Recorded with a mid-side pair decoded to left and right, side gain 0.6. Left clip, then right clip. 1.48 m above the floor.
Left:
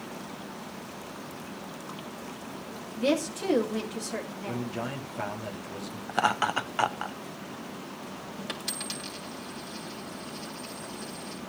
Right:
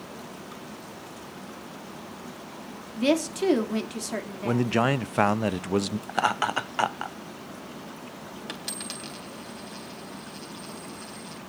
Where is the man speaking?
65° right, 0.6 m.